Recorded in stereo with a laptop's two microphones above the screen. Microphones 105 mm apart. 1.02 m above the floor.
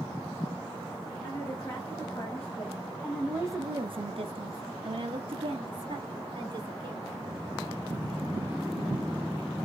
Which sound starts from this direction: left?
A woman speaking, at 1.2 s.